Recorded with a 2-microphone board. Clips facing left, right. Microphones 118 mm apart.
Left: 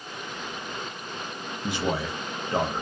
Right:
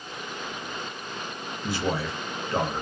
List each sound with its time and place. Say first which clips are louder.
1.6 s a man speaking: even; 20° left (ahead or behind), 0.6 m